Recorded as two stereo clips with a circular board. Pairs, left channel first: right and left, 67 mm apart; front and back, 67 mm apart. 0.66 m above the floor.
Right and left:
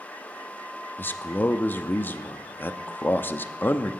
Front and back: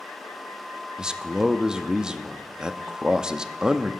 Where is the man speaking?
115° right, 0.5 m.